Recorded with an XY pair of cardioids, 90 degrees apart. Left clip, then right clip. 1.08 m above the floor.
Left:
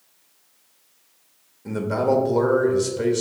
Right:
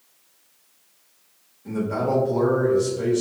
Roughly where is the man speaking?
Ahead left.